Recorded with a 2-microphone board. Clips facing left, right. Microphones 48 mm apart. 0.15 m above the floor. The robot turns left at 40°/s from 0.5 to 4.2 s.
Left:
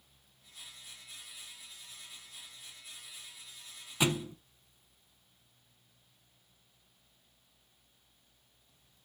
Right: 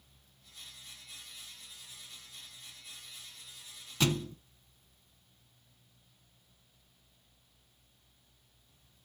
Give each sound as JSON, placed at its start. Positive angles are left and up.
{"t": 4.0, "sound": "a thud", "side_deg": 15, "distance_m": 0.7}